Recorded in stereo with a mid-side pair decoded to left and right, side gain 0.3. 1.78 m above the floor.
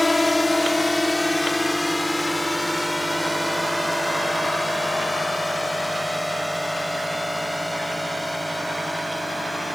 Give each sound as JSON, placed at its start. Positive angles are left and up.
{"t": 0.0, "sound": "a drone", "azimuth_deg": 20}